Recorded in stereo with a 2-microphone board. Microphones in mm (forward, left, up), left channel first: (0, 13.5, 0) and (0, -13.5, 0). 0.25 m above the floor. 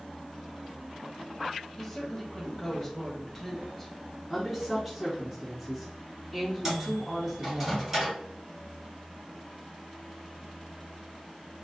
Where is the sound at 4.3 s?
Centre (ahead or behind), 1.9 m.